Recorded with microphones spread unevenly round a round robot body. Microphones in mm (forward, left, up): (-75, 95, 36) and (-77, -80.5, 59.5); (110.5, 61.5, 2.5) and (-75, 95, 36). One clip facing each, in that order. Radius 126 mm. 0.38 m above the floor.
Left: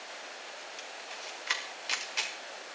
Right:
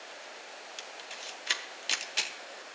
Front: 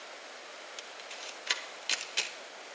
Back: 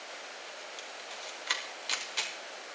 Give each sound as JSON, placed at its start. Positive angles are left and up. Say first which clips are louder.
{"t": 0.8, "sound": "a camera shutter", "louder": "left 1 dB, back 2 dB", "azimuth_deg": -40, "distance_m": 1.1}